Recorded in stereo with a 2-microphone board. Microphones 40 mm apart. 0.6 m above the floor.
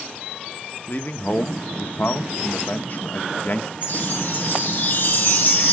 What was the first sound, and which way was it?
A man speaking, 45° left (ahead or behind).